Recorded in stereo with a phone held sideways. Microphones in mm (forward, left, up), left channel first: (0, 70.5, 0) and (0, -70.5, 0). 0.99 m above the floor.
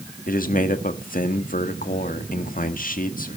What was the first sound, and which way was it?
A man speaking, 80° left.